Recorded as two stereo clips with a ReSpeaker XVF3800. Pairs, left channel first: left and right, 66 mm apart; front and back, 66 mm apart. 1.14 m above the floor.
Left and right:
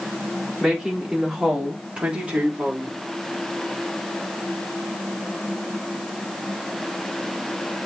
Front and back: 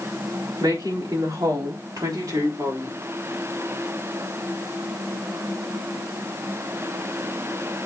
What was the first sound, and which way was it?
A woman speaking, 175° right.